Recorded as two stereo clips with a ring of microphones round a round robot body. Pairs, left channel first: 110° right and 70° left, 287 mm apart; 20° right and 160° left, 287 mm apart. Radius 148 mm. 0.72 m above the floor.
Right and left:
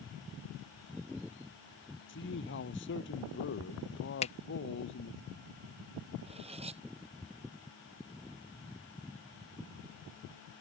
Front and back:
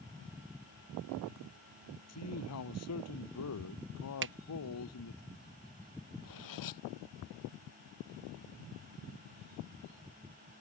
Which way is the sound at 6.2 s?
5° right.